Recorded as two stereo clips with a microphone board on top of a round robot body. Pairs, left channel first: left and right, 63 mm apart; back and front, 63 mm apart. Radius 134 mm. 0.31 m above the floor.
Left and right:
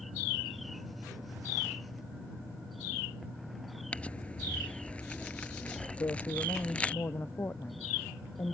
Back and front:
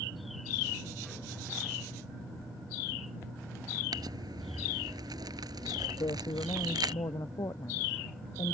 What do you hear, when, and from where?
3.9 s crumpling: 20° left
6.0 s a woman speaking: 145° left